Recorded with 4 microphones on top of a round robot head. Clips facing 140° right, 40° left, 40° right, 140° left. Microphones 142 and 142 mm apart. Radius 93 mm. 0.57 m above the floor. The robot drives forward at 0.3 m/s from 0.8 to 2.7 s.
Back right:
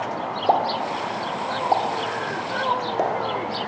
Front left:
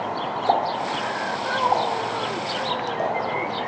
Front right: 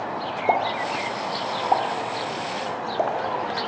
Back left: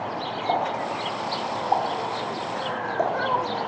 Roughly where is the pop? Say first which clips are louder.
Back right 2 dB, front right 3 dB; right.